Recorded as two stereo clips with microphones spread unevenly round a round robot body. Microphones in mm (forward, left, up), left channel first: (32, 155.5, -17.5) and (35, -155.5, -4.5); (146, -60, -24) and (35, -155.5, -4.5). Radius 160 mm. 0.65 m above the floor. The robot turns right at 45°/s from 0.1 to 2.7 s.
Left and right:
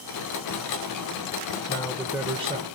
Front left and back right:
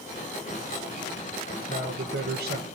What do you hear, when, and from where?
1.7 s a man speaking: 165° left, 2.5 m; by 2.7 s 155° right, 2.5 m